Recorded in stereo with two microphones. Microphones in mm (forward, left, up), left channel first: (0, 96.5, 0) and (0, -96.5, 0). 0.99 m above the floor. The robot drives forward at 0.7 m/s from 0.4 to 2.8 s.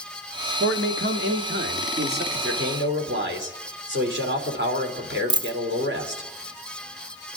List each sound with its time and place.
0.6 s a man speaking: 85° right, 1.7 m; by 2.2 s 55° right (ahead or behind), 2 m
2.3 s a man speaking: 75° right (ahead or behind), 3 m; by 6.3 s 70° right (ahead or behind), 3 m
5.3 s a dropped coin: 25° right (ahead or behind), 0.6 m